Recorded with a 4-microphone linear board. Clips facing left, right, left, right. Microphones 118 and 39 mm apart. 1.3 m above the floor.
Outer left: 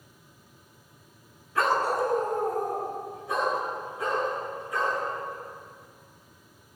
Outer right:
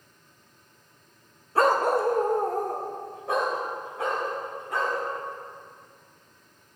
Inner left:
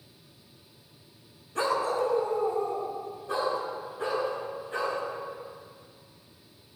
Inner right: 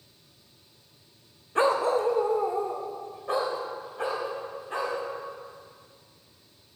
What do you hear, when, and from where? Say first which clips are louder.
1.6 s a dog barking: outer right 3 dB, inner right 4 dB; 40° right (ahead or behind), 0.9 m; by 5.0 s 75° right (ahead or behind), 5 m